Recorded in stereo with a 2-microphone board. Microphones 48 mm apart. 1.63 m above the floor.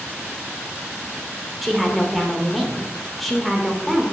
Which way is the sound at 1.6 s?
Centre (ahead or behind).